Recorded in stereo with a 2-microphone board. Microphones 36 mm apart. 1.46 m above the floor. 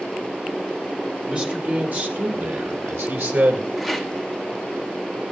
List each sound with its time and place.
1.3 s a man speaking: 30° right (ahead or behind), 3 m; by 3.7 s 80° right, 2.5 m
3.8 s a rattle: 5° right (ahead or behind), 1.9 m